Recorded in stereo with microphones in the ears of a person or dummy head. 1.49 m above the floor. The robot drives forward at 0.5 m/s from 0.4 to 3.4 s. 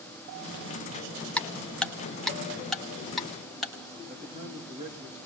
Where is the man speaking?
35° right (ahead or behind), 3 m.